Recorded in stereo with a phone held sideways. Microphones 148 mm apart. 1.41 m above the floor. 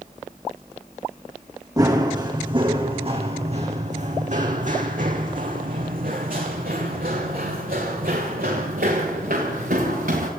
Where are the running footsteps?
25° right (ahead or behind), 4 m; by 10.3 s 75° right (ahead or behind), 7.5 m.